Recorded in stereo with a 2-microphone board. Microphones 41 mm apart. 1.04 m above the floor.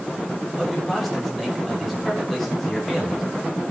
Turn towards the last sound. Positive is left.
turn(degrees=0)  # may be behind; listen again after turning